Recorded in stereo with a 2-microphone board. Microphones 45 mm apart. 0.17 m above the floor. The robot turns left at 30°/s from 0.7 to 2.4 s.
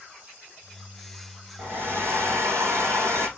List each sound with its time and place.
1.6 s a hair dryer: 50° right (ahead or behind), 2.5 m; by 3.3 s 75° right (ahead or behind), 2.5 m